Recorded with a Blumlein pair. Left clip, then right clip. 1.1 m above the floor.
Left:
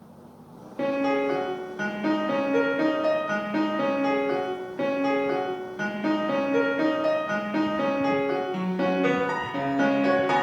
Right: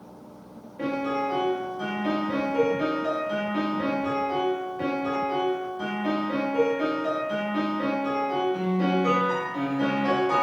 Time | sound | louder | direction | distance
0.8 | a piano | left 3 dB | 35° left | 0.8 m